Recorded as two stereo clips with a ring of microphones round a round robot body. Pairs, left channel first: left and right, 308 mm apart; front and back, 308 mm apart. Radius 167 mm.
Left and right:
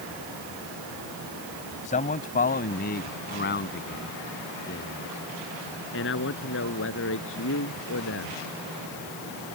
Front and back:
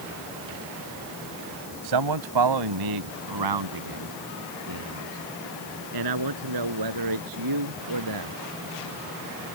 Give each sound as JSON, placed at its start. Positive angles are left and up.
{"t": 1.8, "sound": "a man speaking", "azimuth_deg": 160}